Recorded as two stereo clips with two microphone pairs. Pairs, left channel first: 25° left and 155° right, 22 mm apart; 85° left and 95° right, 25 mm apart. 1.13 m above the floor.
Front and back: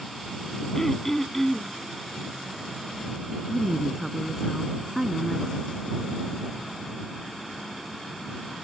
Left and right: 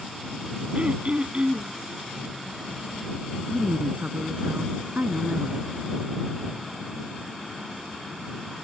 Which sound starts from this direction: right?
A woman speaking, at 3.5 s.